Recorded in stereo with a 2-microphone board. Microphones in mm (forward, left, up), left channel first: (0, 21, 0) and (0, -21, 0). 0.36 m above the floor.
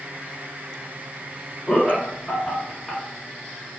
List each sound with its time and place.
1.7 s laughter: 20° left (ahead or behind), 0.9 m